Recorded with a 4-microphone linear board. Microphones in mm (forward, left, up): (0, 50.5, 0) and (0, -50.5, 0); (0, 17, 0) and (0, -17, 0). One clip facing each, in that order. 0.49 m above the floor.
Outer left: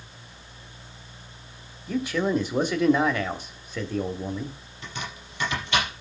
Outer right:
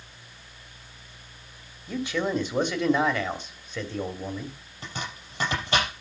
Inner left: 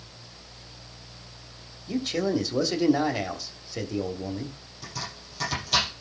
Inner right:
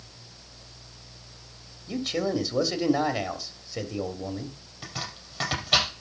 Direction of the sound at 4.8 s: 35° right (ahead or behind).